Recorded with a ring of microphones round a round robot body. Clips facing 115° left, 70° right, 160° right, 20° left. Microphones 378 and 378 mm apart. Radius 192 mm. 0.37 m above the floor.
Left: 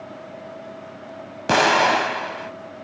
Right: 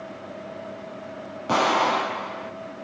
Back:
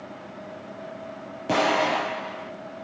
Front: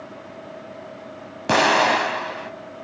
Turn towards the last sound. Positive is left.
turn(degrees=80)